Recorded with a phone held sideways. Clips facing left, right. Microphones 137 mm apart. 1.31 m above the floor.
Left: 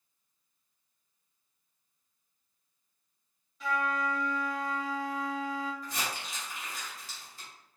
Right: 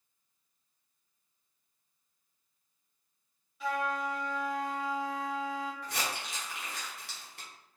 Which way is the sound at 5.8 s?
70° right (ahead or behind).